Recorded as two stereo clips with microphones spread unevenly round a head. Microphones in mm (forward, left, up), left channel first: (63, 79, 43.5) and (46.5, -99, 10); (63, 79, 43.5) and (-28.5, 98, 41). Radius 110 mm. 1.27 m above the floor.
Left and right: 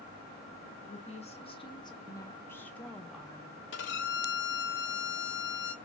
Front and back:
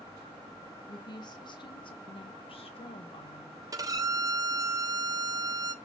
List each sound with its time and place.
0.9 s a woman speaking: 35° left, 2 m; by 3.6 s 15° right, 1.9 m
3.7 s a violin: 120° left, 1.2 m